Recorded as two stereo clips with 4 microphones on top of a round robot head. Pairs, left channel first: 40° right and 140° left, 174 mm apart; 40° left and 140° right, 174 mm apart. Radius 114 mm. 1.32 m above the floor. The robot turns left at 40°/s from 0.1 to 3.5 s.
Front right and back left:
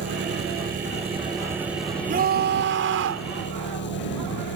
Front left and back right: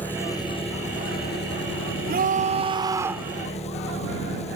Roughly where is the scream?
Behind.